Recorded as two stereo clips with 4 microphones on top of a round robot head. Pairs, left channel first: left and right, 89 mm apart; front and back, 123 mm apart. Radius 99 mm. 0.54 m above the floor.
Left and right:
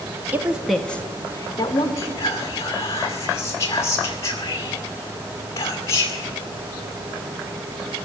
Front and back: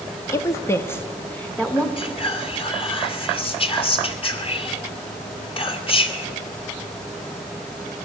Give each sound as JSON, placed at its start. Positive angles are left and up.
{"t": 0.3, "sound": "a woman speaking", "azimuth_deg": -45, "distance_m": 0.8}
{"t": 2.0, "sound": "whispering", "azimuth_deg": 40, "distance_m": 2.0}